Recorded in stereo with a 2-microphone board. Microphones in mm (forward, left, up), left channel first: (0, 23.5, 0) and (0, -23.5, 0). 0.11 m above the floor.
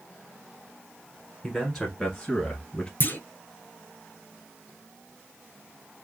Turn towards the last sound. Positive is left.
turn(degrees=45)  # may be behind; listen again after turning